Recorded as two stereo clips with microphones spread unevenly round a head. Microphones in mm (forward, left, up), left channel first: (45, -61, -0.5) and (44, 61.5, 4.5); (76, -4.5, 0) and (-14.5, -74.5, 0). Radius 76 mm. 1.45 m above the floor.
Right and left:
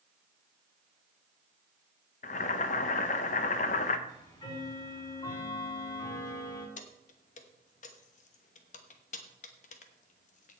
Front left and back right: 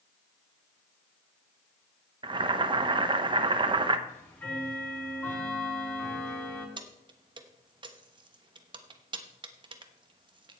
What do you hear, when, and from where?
2.2 s boiling: 105° right, 0.8 m
4.1 s ticking: 35° right, 5 m
6.8 s keys jangling: 105° right, 1.1 m